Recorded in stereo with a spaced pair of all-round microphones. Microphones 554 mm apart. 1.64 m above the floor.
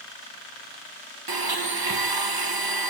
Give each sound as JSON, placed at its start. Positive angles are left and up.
{"t": 1.3, "sound": "a blender", "side_deg": -40, "distance_m": 0.9}